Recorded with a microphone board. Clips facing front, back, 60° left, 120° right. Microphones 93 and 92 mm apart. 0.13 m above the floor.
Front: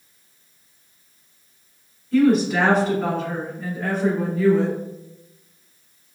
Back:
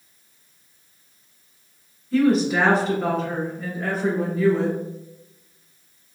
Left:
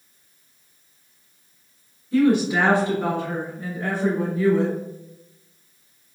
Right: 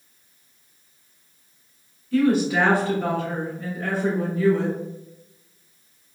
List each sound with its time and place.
2.1 s a woman speaking: 95° left, 1.7 m